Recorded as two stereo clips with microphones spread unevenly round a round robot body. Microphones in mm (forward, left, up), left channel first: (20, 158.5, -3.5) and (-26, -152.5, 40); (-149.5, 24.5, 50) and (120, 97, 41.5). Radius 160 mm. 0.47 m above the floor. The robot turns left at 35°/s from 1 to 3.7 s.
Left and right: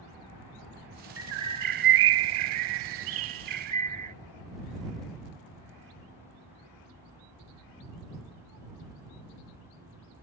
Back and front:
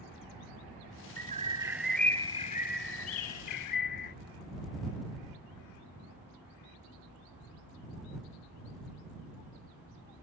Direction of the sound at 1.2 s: 50° right.